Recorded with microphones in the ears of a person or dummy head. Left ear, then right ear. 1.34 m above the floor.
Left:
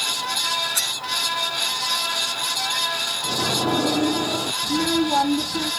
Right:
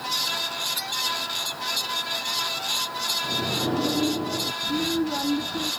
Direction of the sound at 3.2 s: 65° left (ahead or behind).